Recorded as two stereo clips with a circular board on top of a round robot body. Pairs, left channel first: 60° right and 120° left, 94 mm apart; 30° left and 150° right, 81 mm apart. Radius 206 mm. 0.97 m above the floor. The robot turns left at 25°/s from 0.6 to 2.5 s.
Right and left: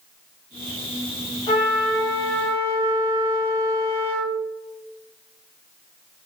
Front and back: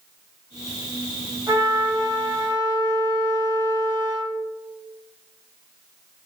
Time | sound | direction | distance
1.5 | a trumpet | 95° right | 2.0 m